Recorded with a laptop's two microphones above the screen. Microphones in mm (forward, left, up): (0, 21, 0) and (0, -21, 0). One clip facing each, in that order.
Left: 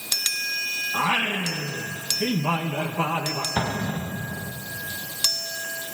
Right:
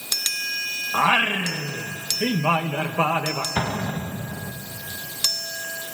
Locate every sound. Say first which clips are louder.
0.9 s singing: right 5 dB; 40° right (ahead or behind), 1.1 m
3.6 s an explosion: right 1 dB; 30° right (ahead or behind), 1.3 m